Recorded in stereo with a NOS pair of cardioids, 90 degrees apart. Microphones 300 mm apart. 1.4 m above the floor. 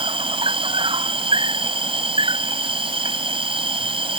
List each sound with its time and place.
0.0 s an insect: 15° right